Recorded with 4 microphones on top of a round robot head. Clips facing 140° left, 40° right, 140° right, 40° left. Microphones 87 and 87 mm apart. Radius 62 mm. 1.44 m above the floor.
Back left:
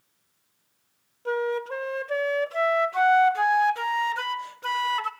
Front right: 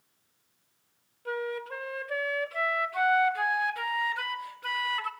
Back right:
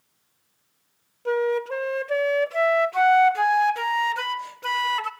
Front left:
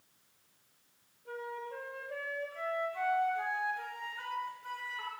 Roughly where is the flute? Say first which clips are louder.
Back left 7 dB, back right 18 dB; behind.